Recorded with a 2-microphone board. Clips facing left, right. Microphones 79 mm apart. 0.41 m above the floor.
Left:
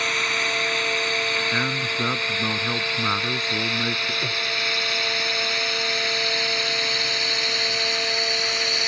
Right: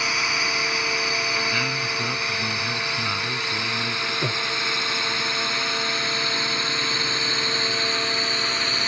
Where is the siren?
No siren in this recording.